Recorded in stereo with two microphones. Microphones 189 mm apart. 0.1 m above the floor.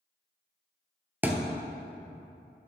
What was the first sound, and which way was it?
A thud, 10° right (ahead or behind).